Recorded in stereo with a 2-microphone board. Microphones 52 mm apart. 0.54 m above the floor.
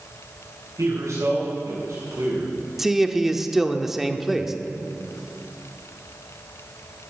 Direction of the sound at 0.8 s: 80° right.